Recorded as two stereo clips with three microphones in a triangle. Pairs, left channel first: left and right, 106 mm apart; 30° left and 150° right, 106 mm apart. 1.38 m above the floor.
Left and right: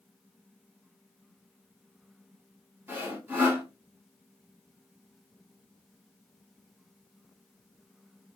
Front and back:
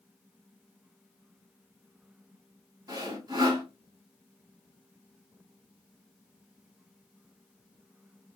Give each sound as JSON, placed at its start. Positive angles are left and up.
{"t": 2.9, "sound": "sawing", "azimuth_deg": -150, "distance_m": 1.2}